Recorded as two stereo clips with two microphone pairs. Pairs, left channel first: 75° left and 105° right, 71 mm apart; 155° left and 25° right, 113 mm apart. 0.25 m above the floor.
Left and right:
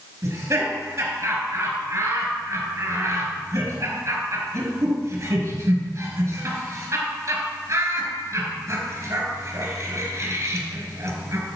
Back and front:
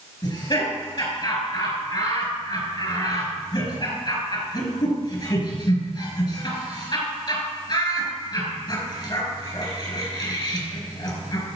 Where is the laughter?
160° right, 4.5 m.